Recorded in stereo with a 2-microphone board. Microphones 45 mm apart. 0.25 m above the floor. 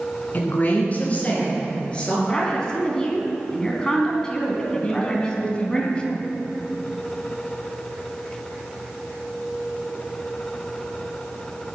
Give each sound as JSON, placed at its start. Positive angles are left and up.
{"t": 0.3, "sound": "a woman speaking", "side_deg": 45, "distance_m": 2.5}
{"t": 2.3, "sound": "a woman speaking", "side_deg": 15, "distance_m": 2.5}
{"t": 4.8, "sound": "a woman speaking", "side_deg": 25, "distance_m": 1.8}